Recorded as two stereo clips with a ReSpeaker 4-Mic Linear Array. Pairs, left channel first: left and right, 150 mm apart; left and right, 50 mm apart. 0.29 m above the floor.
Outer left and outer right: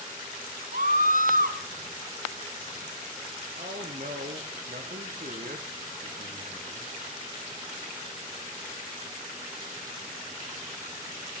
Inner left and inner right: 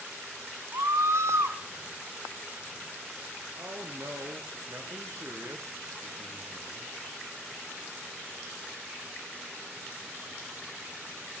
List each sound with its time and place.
0.7 s a scream: 65° right (ahead or behind), 2.5 m
3.5 s a man speaking: 65° right (ahead or behind), 4 m